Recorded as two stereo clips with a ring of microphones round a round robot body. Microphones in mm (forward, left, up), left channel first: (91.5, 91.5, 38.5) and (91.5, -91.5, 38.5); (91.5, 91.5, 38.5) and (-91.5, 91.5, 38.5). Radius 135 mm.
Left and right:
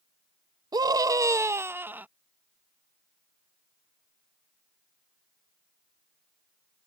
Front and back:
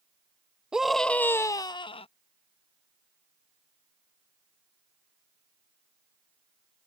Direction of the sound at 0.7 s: 100° right.